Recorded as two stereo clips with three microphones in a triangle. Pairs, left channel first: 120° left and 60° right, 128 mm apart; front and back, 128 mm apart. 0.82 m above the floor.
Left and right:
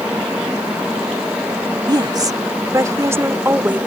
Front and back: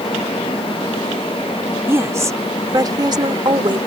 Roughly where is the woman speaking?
Right.